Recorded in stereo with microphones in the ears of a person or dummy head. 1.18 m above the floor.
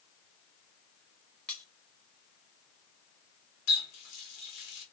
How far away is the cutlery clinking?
About 1.0 m.